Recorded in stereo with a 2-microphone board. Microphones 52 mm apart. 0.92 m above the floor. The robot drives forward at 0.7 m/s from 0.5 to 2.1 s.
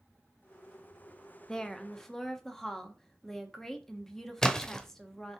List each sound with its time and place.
1.5 s a woman speaking: 15° left (ahead or behind), 0.7 m; by 5.4 s 10° left (ahead or behind), 1.1 m
4.4 s a splash: 10° left (ahead or behind), 0.7 m